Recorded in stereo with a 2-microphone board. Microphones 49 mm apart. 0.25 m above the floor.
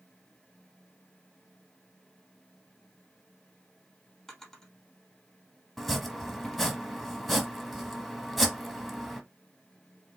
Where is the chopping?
5° right (ahead or behind), 1.1 m.